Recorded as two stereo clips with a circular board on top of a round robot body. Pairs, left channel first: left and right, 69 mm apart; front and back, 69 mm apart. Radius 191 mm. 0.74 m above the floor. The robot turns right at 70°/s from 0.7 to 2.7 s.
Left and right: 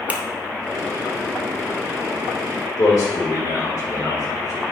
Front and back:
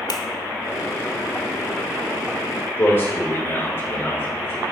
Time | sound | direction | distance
0.1 | a finger snap | 20° right | 0.7 m
2.8 | a man speaking | 50° left | 3 m